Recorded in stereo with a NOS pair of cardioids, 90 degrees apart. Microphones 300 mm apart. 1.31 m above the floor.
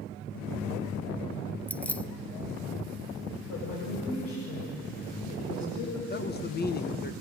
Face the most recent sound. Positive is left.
turn(degrees=35)